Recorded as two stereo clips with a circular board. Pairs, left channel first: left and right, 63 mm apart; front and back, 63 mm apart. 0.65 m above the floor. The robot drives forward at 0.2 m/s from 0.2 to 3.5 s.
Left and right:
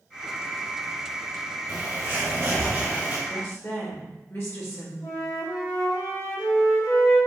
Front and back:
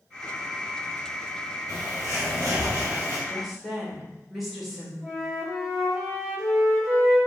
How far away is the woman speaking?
About 1.0 m.